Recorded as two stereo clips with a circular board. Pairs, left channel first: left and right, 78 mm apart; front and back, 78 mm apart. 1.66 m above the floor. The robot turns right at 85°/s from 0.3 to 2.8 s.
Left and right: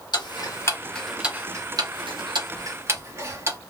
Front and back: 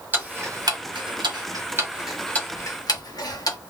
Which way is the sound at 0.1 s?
115° left.